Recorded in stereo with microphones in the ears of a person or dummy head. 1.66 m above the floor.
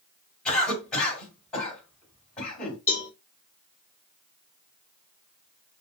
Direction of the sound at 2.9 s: 15° left (ahead or behind).